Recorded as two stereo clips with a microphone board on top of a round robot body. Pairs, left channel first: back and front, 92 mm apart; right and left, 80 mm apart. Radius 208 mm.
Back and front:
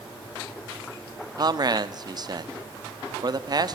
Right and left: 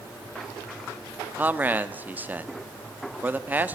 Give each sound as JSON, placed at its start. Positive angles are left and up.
{"t": 1.4, "sound": "a man speaking", "azimuth_deg": 25, "distance_m": 1.5}